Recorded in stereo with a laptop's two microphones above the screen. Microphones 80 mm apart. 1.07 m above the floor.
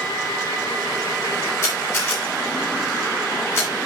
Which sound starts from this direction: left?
A camera shutter, at 1.6 s.